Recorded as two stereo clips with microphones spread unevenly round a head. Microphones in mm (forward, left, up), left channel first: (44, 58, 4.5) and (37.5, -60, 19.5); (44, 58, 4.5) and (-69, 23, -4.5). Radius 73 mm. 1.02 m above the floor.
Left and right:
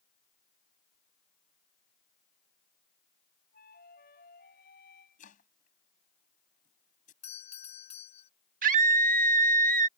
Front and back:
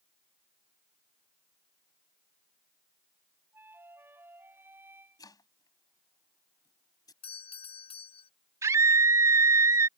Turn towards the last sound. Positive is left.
turn(degrees=-90)